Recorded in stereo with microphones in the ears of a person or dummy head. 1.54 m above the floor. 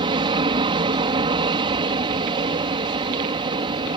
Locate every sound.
0.0 s an aircraft: 25° right (ahead or behind)